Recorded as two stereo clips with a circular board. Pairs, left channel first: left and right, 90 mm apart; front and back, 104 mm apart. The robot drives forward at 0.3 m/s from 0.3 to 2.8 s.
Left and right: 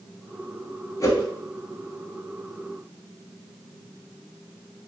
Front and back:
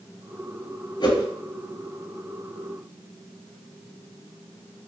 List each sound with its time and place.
1.0 s a whoosh: 40° left, 0.8 m; by 1.2 s 45° left, 0.7 m